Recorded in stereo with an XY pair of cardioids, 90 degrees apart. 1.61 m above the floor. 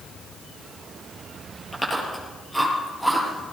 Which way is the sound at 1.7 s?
5° left.